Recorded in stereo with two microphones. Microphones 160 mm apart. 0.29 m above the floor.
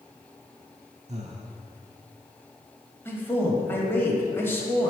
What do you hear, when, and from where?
1.1 s breathing: 45° right (ahead or behind), 0.6 m
3.0 s a man speaking: 15° left (ahead or behind), 1.2 m